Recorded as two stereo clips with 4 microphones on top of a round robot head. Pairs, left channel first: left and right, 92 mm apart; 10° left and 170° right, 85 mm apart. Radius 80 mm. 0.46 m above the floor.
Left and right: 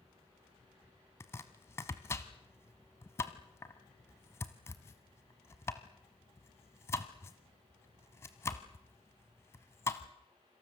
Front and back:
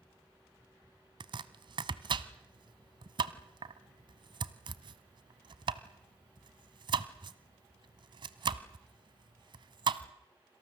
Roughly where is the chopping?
Behind.